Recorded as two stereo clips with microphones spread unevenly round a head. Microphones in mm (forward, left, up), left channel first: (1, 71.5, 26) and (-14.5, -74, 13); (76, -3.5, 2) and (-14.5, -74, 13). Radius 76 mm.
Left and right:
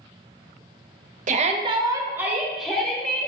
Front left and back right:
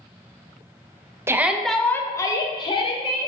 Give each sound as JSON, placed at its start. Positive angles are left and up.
{"t": 1.3, "sound": "a shout", "azimuth_deg": -70, "distance_m": 0.6}